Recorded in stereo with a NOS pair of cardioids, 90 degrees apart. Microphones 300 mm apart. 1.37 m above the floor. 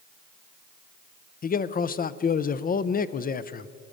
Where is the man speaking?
30° left, 0.5 m.